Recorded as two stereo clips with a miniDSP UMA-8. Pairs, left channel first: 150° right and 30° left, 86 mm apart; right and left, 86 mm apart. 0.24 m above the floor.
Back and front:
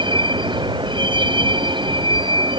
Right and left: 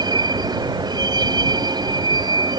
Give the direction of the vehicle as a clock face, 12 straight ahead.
10 o'clock.